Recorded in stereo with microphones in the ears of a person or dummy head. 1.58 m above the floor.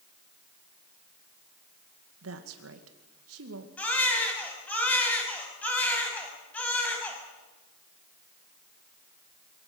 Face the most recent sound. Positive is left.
turn(degrees=15)  # may be behind; listen again after turning